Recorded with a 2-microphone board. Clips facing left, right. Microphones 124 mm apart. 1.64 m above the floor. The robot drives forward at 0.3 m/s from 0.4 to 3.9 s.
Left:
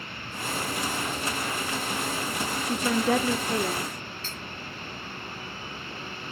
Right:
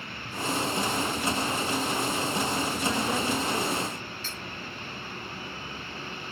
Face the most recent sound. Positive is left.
turn(degrees=50)  # may be behind; listen again after turning